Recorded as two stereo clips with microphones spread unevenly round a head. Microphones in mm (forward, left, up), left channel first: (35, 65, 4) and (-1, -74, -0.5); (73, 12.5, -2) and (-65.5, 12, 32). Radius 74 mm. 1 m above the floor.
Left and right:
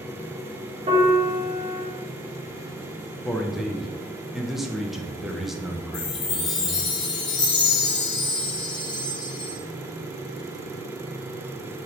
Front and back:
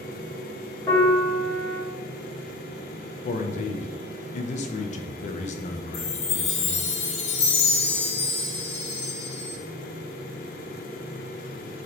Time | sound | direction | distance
0.9 | a piano | 60° right | 1.2 m
3.2 | a man speaking | 15° right | 0.5 m
5.9 | a chime | 15° left | 0.7 m